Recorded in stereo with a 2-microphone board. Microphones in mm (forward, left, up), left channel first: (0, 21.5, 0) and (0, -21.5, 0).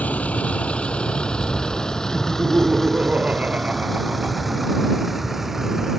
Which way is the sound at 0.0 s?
35° left (ahead or behind).